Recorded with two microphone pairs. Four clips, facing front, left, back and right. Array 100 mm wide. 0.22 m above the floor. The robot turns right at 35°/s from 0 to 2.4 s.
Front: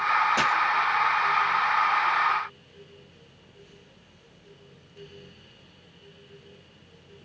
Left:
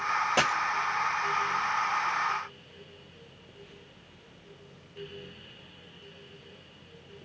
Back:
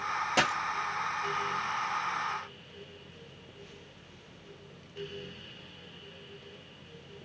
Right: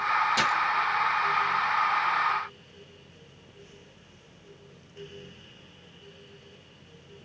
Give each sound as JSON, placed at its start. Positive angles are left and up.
{"t": 0.4, "sound": "a dropped coin", "azimuth_deg": 120, "distance_m": 0.9}